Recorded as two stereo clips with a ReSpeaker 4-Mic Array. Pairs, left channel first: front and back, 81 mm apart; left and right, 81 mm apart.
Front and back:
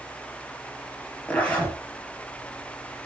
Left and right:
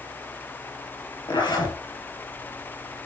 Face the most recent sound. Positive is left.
turn(degrees=75)